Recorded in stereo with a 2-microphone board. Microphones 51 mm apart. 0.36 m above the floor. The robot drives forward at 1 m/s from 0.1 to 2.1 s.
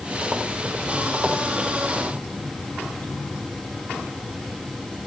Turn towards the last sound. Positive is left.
No sound to turn to.